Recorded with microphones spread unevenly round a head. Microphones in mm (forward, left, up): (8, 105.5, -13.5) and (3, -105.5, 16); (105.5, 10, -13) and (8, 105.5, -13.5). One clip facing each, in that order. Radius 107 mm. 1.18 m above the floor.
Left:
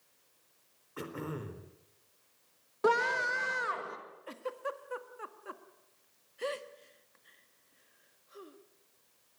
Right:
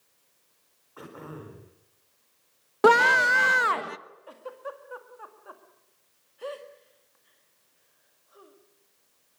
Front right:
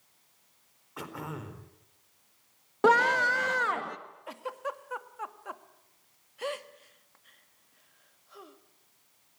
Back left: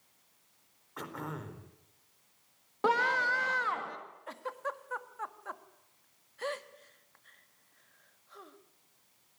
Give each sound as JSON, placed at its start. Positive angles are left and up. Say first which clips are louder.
{"t": 1.0, "sound": "throat clearing", "louder": "left 2 dB, front right 1 dB", "azimuth_deg": 35, "distance_m": 4.0}
{"t": 2.8, "sound": "a scream", "louder": "right 9 dB, front right 6 dB", "azimuth_deg": -110, "distance_m": 1.5}
{"t": 4.3, "sound": "a giggle", "louder": "left 1 dB, front right 2 dB", "azimuth_deg": 35, "distance_m": 1.8}